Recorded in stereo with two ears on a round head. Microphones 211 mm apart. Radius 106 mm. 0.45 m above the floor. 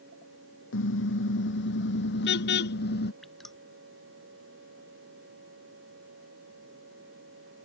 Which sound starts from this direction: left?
A car horn, at 0.7 s.